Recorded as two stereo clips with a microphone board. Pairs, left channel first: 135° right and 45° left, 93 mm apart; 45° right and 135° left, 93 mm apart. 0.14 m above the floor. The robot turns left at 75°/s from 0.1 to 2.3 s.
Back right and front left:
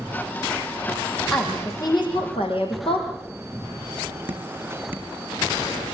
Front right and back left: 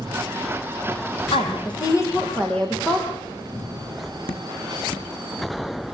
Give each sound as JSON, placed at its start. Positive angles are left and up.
{"t": 1.3, "sound": "a woman speaking", "azimuth_deg": -50, "distance_m": 6.0}
{"t": 4.3, "sound": "dripping", "azimuth_deg": -25, "distance_m": 2.5}